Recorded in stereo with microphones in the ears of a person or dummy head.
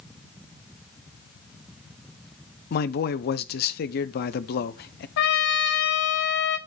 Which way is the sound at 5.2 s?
60° left (ahead or behind).